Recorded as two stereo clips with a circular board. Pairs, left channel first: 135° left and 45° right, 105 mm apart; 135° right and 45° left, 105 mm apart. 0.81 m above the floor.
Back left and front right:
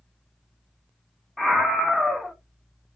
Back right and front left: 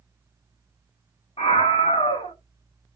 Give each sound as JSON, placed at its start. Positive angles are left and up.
{"t": 1.4, "sound": "a scream", "azimuth_deg": -135, "distance_m": 1.4}